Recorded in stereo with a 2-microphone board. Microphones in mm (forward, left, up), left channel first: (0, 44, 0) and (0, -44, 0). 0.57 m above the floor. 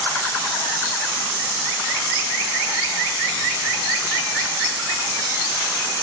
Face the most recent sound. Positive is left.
No sound to turn to.